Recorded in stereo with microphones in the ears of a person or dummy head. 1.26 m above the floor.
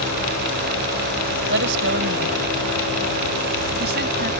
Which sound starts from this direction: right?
A woman speaking, at 1.5 s.